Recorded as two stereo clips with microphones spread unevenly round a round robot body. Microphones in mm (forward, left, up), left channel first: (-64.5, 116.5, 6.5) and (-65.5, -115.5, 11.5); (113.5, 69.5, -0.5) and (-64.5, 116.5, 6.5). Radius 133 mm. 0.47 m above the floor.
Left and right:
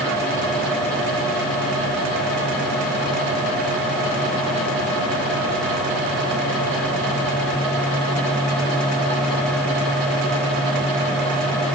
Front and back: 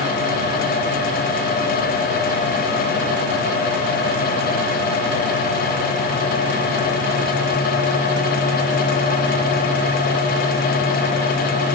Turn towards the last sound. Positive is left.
No sound to turn to.